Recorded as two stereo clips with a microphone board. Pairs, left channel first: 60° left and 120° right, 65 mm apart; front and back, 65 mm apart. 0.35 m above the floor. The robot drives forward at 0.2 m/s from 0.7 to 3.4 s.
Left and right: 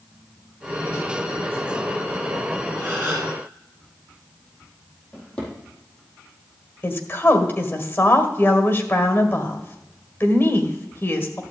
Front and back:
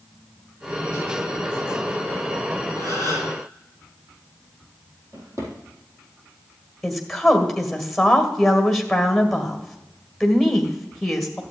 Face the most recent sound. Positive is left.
turn(degrees=90)